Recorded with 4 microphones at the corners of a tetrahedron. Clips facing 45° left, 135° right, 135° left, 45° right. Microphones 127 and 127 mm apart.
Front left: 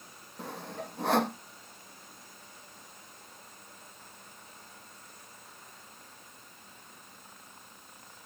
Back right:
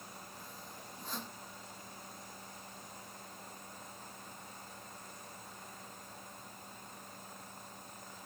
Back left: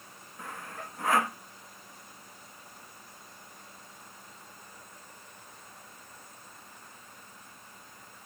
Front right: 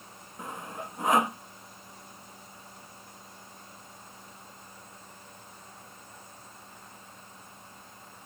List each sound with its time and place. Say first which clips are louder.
0.4 s sawing: front left 11 dB, front right 3 dB; 25° left